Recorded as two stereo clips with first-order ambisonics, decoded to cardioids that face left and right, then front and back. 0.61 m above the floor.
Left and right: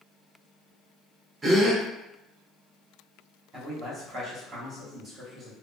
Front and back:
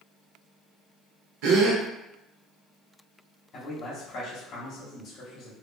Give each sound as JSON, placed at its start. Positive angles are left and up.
{"t": 1.4, "sound": "a gasp", "azimuth_deg": -160, "distance_m": 0.6}
{"t": 3.5, "sound": "a man speaking", "azimuth_deg": -40, "distance_m": 1.0}